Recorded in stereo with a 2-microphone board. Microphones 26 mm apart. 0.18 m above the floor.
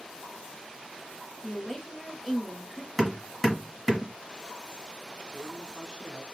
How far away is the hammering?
About 1.3 m.